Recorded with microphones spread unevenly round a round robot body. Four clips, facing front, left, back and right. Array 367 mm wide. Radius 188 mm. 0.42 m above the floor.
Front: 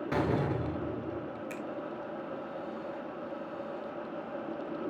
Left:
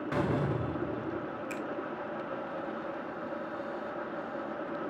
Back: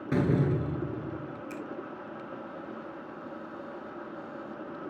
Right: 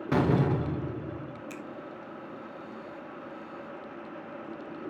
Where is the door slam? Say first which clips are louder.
Right 6 dB, back 4 dB; 130° right, 0.9 m.